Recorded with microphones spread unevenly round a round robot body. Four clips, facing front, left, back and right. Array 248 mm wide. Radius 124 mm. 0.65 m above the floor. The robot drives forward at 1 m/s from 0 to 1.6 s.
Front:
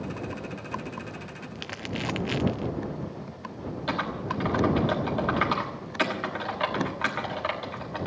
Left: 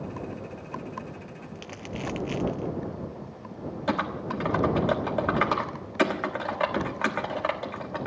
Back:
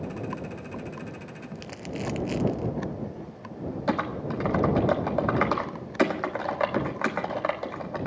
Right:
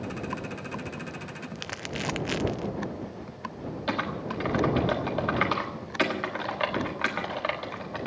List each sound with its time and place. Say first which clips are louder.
1.6 s crumpling: even, front 1 dB; 30° right, 0.6 m; by 2.7 s 40° right, 0.6 m
3.9 s typing on a keyboard: left 3 dB, back 2 dB; 155° left, 1.3 m